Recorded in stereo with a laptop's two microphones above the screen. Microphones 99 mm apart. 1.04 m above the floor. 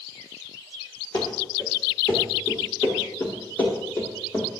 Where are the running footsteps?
35° left (ahead or behind), 9 m; by 4.5 s 25° left (ahead or behind), 9.5 m.